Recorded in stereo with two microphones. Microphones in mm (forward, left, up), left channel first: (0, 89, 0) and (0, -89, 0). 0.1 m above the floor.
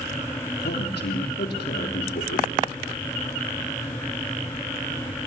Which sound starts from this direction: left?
A man speaking, at 0.6 s.